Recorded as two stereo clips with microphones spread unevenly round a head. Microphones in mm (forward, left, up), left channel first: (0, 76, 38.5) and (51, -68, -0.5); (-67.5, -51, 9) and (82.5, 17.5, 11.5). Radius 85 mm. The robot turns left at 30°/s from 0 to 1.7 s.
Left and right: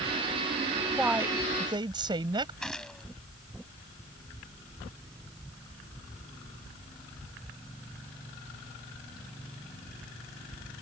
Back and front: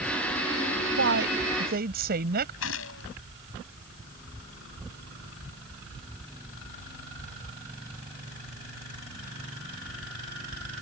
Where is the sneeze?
I don't hear a sneeze.